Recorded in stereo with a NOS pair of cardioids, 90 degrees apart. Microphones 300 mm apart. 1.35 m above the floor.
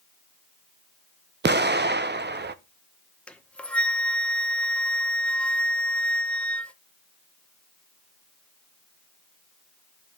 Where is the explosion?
35° right, 0.8 m.